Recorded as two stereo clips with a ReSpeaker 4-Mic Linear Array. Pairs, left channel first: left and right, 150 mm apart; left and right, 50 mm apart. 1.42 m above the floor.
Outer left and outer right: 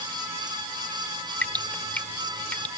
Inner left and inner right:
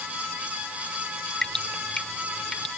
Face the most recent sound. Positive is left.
turn(degrees=10)  # may be behind; listen again after turning